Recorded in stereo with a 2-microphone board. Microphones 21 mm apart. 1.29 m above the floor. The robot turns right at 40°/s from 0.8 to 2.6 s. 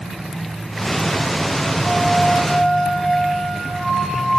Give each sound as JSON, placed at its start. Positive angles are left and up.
{"t": 1.8, "sound": "a flute", "azimuth_deg": 80, "distance_m": 7.0}